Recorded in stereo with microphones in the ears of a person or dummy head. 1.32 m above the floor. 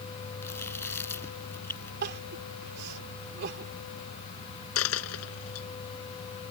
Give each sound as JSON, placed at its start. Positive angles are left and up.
{"t": 0.4, "sound": "chewing", "side_deg": 10}
{"t": 2.0, "sound": "crying", "side_deg": -55}
{"t": 4.8, "sound": "a dropped coin", "side_deg": 80}